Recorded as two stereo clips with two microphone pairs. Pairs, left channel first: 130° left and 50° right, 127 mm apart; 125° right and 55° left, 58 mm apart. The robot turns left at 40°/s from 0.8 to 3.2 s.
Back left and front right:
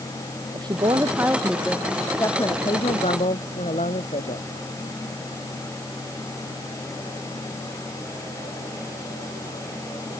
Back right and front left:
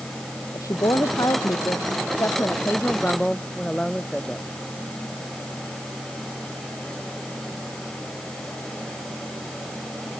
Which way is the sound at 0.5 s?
105° right.